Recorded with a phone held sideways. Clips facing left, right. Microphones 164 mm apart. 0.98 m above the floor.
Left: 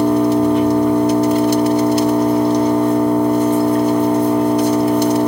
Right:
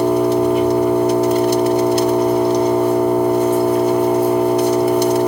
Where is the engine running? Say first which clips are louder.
Left 1 dB; 5° right (ahead or behind), 1.5 m.